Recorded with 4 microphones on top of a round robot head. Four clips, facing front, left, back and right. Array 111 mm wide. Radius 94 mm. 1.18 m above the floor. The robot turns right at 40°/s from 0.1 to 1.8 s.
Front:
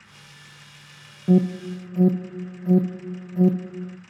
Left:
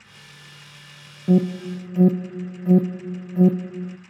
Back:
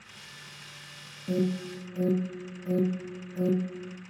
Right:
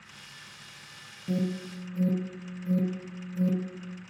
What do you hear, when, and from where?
1.3 s an alarm: 50° left, 0.5 m; by 4.0 s 75° left, 0.5 m